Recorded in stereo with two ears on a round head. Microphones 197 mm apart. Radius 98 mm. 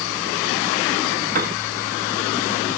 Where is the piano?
40° right (ahead or behind), 0.5 m.